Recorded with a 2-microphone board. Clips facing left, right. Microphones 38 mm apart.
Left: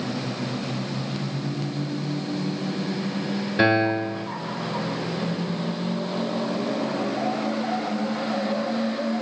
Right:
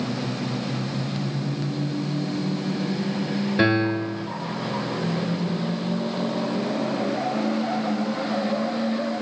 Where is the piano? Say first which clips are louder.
Left 2 dB; centre (ahead or behind), 0.7 m.